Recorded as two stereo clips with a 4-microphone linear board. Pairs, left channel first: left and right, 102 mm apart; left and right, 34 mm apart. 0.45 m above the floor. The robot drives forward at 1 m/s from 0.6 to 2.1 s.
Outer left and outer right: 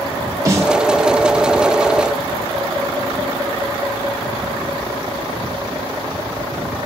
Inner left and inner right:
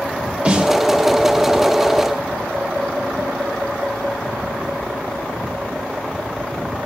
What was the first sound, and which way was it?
A snare drum, 30° right (ahead or behind).